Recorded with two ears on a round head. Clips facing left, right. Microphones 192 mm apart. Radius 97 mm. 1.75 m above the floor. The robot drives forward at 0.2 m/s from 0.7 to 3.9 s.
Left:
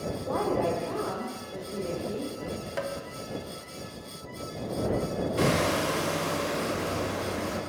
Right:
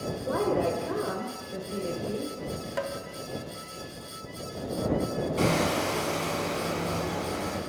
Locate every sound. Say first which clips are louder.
0.2 s a woman speaking: right 1 dB; 15° right (ahead or behind), 1.1 m
2.8 s tapping: right 1 dB; centre (ahead or behind), 0.7 m
5.4 s hammering: left 1 dB; 15° left (ahead or behind), 1.3 m